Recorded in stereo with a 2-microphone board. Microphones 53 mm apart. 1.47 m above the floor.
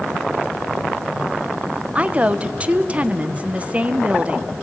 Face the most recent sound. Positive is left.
turn(degrees=-25)  # may be behind; listen again after turning